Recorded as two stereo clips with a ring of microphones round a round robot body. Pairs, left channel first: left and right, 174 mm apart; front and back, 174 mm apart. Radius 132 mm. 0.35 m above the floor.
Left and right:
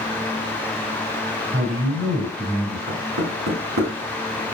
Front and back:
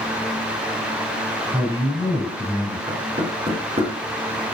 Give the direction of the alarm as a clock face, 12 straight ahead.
I don't hear an alarm.